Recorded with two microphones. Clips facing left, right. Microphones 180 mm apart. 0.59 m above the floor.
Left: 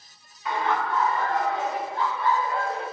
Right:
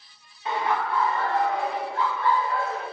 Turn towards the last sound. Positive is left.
turn(degrees=35)  # may be behind; listen again after turning